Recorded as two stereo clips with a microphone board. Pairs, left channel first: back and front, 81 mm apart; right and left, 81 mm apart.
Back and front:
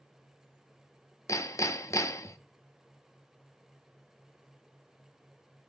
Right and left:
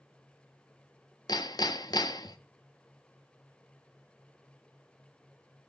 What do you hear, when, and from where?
1.3 s hammering: 130° right, 0.7 m